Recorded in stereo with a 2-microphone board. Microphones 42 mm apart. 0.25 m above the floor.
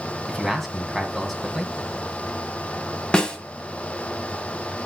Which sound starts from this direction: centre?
A man speaking, at 0.3 s.